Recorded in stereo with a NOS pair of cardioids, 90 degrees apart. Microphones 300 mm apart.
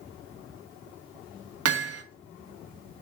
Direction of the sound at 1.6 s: 55° right.